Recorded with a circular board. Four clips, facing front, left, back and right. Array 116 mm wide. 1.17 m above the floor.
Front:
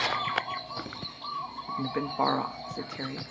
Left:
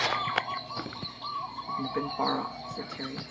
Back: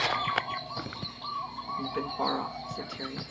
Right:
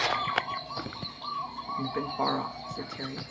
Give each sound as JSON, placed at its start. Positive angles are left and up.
{"t": 1.7, "sound": "a woman speaking", "azimuth_deg": 0, "distance_m": 0.7}